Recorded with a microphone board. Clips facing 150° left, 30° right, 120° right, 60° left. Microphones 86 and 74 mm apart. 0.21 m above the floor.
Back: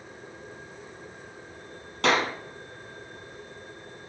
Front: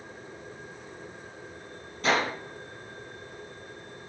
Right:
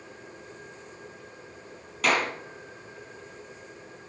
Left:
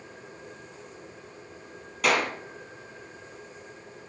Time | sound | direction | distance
2.0 | a clap | 145° left | 5.5 m